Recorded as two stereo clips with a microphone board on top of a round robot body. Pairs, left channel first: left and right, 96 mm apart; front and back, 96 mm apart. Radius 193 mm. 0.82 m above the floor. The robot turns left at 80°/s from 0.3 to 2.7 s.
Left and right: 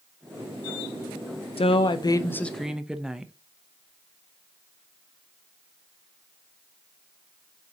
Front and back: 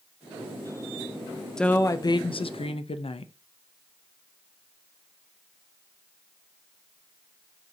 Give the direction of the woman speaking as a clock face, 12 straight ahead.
9 o'clock.